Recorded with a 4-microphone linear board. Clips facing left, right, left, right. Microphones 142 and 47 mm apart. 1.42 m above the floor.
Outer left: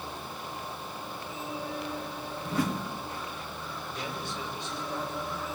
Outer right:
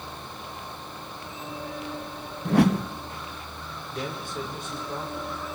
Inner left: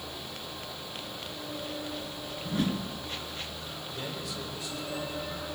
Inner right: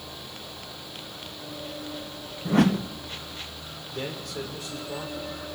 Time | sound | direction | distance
2.5 | a whoosh | 70° right (ahead or behind) | 0.8 m
3.9 | a man speaking | 50° right (ahead or behind) | 6 m